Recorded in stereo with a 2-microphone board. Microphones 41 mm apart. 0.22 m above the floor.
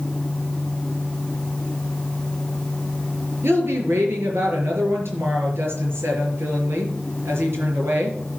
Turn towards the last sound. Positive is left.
turn(degrees=-70)  # may be behind; listen again after turning